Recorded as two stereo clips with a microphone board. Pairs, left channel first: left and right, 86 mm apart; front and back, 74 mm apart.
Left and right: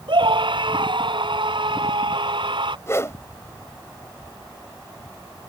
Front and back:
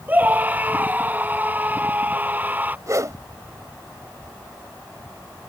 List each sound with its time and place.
0.1 s a scream: 115° right
2.9 s a whoosh: 145° left